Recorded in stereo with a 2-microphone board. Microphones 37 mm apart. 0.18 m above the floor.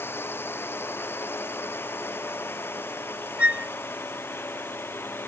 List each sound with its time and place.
0.0 s a drone: 85° left; by 5.3 s 80° left
3.4 s a flute: 35° right (ahead or behind)